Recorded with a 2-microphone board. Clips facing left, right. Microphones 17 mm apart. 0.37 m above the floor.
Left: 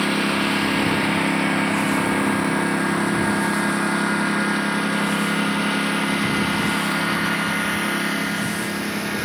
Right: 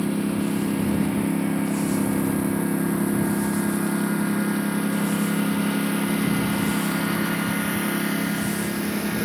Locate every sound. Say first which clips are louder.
0.0 s a lawn mower: left 4 dB; 60° left (ahead or behind); by 9.2 s 20° left (ahead or behind)